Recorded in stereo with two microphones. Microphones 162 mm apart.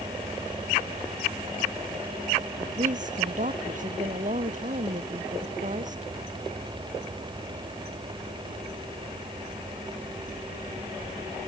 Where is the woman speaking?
50° right (ahead or behind).